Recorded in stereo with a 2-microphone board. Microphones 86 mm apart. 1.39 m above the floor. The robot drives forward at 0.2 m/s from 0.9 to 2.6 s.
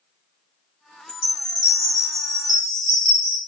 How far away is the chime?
About 1.0 m.